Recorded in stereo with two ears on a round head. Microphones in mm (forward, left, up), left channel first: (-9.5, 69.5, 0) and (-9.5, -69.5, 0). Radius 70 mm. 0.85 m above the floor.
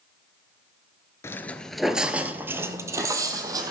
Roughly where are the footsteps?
Centre.